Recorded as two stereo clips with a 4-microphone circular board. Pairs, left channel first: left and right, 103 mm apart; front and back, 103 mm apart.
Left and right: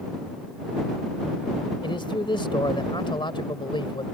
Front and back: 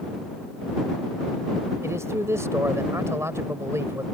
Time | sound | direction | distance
1.8 | a man speaking | 120° left | ?